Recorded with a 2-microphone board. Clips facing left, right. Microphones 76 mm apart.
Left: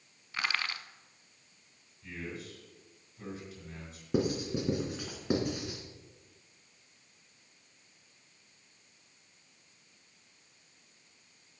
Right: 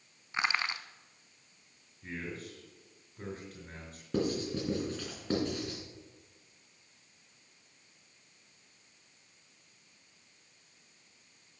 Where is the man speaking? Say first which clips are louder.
Right 1 dB; 45° right (ahead or behind), 5.5 m.